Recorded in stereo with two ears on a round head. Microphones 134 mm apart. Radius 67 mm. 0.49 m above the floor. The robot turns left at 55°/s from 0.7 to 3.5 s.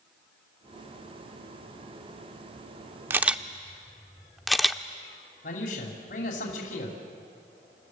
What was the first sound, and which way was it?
A camera shutter, 15° right (ahead or behind).